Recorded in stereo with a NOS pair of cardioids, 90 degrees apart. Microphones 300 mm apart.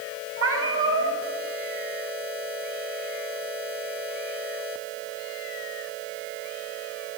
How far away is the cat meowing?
About 4.5 m.